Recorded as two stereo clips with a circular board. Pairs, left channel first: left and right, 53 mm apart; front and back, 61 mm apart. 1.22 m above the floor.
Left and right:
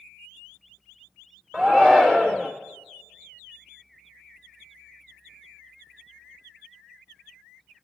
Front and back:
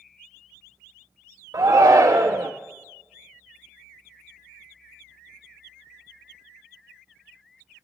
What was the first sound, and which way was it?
A shout, 170° right.